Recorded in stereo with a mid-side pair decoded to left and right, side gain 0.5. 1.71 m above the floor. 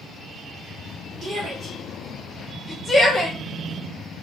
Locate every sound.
1.2 s a shout: 45° right, 0.8 m; by 3.4 s 30° left, 1.2 m